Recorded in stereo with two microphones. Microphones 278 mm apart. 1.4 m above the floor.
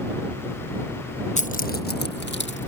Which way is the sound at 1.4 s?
25° left (ahead or behind).